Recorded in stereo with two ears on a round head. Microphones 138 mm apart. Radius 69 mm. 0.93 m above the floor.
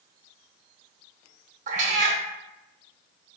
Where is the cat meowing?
45° right (ahead or behind), 0.7 m.